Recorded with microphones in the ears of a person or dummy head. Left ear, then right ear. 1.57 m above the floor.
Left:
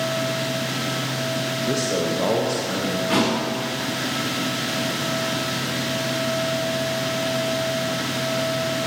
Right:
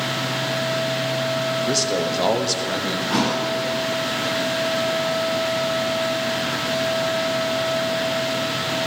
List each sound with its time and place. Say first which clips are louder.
1.6 s a man speaking: right 2 dB; 40° right (ahead or behind), 1.1 m
3.1 s a thud: left 1 dB; 20° left (ahead or behind), 2.5 m